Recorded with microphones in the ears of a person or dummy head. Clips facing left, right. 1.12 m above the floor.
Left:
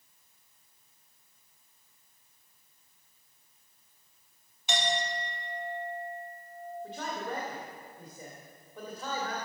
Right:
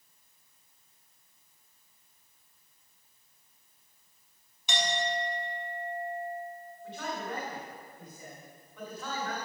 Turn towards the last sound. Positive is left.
turn(degrees=30)  # may be behind; listen again after turning